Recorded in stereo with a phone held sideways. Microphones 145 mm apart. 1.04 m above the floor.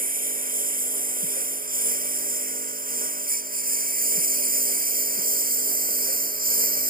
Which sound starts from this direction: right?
A lawn mower, at 0.0 s.